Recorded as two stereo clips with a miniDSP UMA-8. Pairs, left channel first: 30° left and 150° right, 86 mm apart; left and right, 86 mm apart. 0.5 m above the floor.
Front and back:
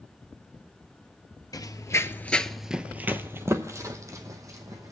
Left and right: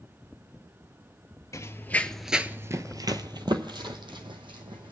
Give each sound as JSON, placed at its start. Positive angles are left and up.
{"t": 1.5, "sound": "running footsteps", "azimuth_deg": 50, "distance_m": 0.7}